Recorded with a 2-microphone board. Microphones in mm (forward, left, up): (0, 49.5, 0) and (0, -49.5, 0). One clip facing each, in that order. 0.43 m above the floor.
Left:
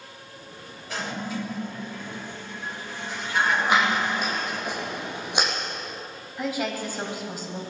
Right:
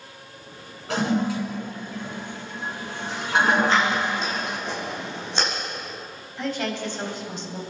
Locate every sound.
0.9 s a toilet flushing: 80° right, 4 m
3.7 s scissors: 15° left (ahead or behind), 5.5 m
6.4 s a woman speaking: 5° left (ahead or behind), 3 m